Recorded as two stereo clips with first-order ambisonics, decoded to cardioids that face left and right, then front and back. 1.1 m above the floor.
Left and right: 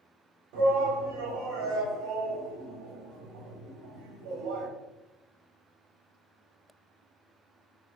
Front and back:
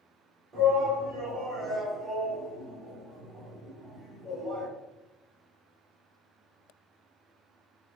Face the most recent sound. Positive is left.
turn(degrees=-110)